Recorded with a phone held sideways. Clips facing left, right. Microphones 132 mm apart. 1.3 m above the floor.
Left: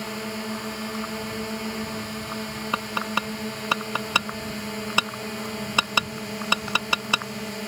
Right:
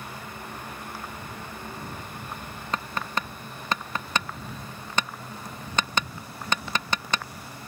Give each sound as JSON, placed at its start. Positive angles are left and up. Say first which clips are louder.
{"t": 0.0, "sound": "a drone", "louder": "left 8 dB", "side_deg": 90}
{"t": 2.7, "sound": "tapping", "louder": "left 1 dB", "side_deg": 10}